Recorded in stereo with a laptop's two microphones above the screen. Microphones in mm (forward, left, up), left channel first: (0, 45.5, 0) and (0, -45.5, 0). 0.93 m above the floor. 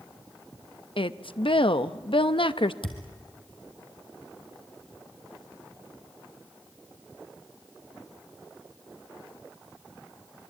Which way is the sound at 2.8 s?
70° left (ahead or behind).